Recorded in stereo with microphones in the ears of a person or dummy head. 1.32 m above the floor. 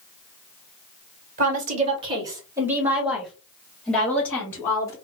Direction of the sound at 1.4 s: 45° right (ahead or behind).